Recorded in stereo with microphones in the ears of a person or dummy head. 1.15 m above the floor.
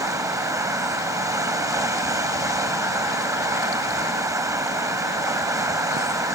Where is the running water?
15° right (ahead or behind).